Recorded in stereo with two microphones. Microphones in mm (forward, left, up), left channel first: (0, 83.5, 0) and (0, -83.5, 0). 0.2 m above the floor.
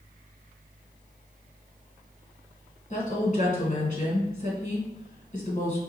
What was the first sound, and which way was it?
A woman speaking, 45° left (ahead or behind).